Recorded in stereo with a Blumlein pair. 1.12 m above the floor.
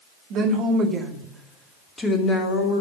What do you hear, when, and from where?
0.3 s a woman speaking: 40° right, 3 m; by 2.8 s 35° left, 3 m